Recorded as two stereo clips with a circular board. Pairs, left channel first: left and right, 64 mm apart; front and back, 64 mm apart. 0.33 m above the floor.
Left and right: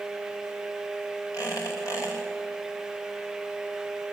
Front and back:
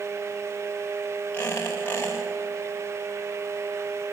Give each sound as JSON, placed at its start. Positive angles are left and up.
{"t": 1.3, "sound": "a squeak", "azimuth_deg": 60, "distance_m": 8.5}